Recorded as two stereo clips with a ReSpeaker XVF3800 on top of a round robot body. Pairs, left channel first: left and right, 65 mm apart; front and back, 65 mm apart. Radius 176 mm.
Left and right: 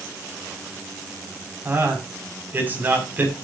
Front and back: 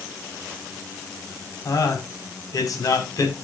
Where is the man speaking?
30° right, 5 m.